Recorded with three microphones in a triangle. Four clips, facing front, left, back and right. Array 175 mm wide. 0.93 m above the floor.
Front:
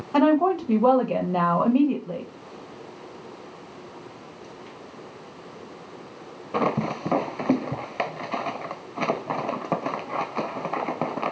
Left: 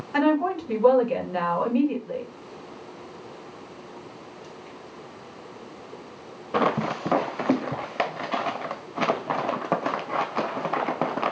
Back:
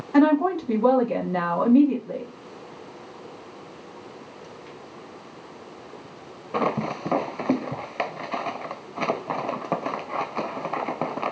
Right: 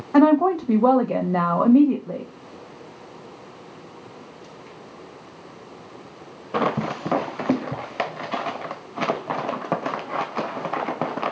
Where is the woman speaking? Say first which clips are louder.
Right 6 dB, back 1 dB; 75° right, 0.9 m.